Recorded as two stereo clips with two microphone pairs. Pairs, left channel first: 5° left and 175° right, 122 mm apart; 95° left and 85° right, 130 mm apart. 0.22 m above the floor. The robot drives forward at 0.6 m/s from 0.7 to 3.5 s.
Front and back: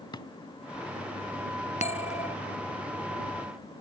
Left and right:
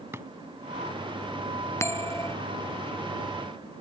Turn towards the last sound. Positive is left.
turn(degrees=30)